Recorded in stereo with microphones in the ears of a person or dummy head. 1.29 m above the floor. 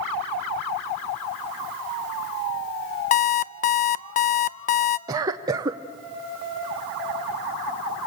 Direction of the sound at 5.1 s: 20° right (ahead or behind).